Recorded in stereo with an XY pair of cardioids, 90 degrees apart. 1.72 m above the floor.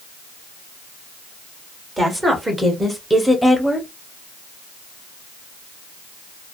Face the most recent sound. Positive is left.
turn(degrees=15)